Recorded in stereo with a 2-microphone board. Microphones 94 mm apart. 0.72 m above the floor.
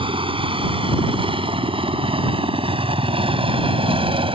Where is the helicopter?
70° right (ahead or behind); by 4.4 s 75° right (ahead or behind).